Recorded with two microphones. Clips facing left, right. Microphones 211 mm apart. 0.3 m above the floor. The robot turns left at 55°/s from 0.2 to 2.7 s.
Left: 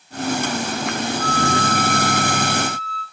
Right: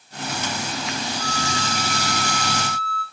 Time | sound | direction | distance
1.2 | a flute | 175° left | 8.5 m